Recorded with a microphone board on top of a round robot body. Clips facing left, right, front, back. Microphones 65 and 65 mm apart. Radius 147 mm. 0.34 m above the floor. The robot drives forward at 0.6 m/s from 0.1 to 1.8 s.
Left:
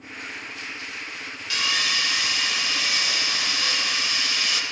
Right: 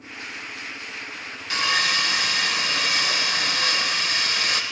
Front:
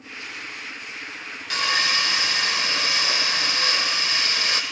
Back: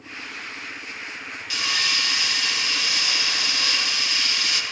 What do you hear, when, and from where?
1.5 s sawing: 40° right, 0.8 m; by 4.6 s 50° right, 0.7 m